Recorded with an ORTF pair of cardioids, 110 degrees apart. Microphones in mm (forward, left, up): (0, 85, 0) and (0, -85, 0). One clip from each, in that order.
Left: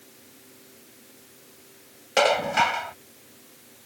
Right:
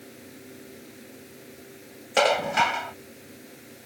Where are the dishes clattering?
Straight ahead.